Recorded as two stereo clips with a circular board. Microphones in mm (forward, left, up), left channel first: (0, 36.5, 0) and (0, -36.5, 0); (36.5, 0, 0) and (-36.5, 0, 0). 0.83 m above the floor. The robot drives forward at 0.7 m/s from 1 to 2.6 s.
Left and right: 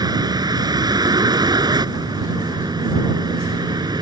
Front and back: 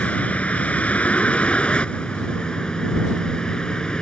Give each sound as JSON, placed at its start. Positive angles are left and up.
{"t": 0.0, "sound": "a vehicle", "azimuth_deg": -75}